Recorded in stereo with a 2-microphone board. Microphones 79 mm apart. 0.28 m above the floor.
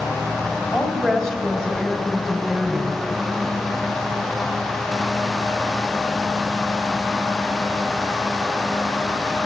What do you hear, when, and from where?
0.7 s a woman speaking: 5° left (ahead or behind), 1.8 m